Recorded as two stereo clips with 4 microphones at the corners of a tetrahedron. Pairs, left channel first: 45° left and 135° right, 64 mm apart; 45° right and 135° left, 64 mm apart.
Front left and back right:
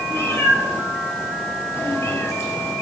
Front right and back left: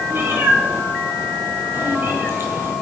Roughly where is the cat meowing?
Left.